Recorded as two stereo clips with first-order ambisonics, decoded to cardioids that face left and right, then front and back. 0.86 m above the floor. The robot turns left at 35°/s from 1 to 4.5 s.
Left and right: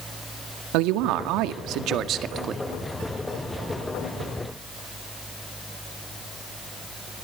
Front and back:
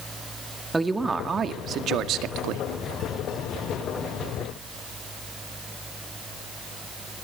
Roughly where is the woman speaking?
Right.